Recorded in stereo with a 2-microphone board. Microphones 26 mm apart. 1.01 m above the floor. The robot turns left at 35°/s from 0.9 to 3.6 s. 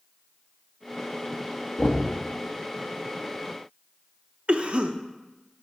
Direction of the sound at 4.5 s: 50° right (ahead or behind).